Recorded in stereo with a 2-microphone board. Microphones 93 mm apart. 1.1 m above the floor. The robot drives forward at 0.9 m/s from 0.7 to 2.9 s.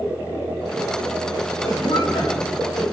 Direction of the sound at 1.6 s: 60° left (ahead or behind).